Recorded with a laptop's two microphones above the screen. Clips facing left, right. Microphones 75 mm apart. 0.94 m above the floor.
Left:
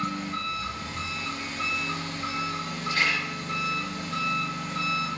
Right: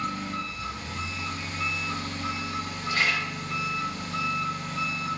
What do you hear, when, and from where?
0.0 s an engine running: 45° left (ahead or behind), 1.0 m
2.9 s a camera shutter: 40° right (ahead or behind), 1.4 m